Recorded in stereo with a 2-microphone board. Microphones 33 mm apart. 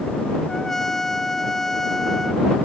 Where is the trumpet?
15° left (ahead or behind).